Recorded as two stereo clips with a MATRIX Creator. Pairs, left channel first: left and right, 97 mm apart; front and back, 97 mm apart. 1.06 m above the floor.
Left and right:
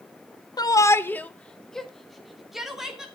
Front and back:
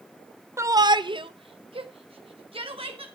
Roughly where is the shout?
Behind left.